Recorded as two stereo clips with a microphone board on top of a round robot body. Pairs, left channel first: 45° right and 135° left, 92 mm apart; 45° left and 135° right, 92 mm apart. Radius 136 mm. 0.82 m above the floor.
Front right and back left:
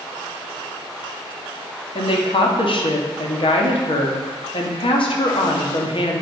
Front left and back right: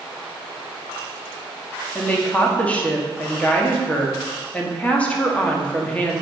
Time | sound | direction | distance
1.9 | a woman speaking | 30° right | 2.0 m